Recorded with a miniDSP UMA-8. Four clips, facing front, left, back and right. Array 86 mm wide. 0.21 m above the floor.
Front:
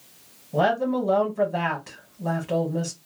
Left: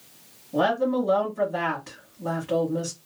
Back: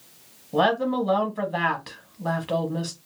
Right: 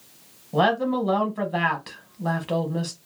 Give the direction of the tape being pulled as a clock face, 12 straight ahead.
I don't hear tape being pulled.